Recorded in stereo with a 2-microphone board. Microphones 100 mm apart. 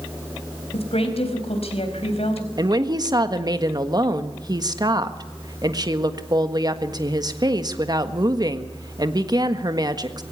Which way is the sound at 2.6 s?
40° right (ahead or behind).